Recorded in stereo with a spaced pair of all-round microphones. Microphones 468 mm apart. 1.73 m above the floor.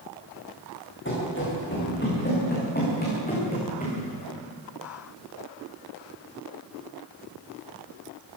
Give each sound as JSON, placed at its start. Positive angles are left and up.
{"t": 1.1, "sound": "running footsteps", "side_deg": 25, "distance_m": 9.5}